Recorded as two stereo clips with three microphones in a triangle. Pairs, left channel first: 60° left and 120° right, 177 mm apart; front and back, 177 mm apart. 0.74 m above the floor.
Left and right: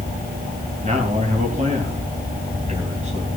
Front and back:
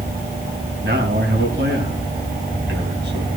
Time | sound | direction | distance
0.8 | a man speaking | 170° right | 4.5 m